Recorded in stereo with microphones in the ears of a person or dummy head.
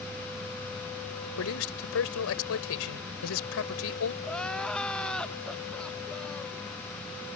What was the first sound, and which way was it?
A man speaking, 80° left.